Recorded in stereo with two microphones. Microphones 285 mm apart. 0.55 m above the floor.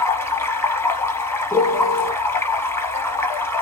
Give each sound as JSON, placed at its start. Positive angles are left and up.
{"t": 0.0, "sound": "running water", "side_deg": 10, "distance_m": 0.7}
{"t": 1.5, "sound": "a piano", "side_deg": 0, "distance_m": 1.3}